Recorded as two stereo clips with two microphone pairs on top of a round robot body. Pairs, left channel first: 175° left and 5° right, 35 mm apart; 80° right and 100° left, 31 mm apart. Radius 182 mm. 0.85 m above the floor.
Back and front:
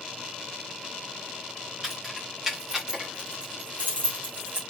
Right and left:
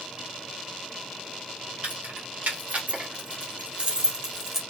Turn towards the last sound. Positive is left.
turn(degrees=15)